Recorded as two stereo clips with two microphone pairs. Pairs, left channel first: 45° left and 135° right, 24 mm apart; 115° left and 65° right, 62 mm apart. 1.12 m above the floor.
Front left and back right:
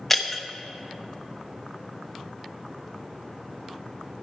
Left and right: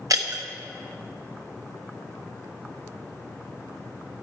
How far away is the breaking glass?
About 0.8 m.